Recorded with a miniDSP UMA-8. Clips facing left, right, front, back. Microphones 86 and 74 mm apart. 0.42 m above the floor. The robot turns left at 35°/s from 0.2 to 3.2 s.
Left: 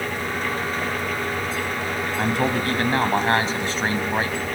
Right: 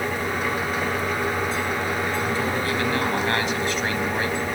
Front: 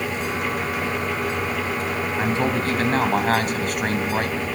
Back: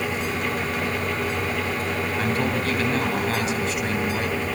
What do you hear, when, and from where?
2.2 s a man speaking: 70° left, 2.5 m; by 4.5 s 35° left, 2.5 m